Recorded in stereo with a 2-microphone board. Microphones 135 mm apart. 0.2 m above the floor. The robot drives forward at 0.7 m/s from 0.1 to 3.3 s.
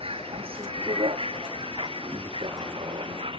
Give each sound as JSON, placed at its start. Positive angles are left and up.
{"t": 0.0, "sound": "a vehicle", "side_deg": -45}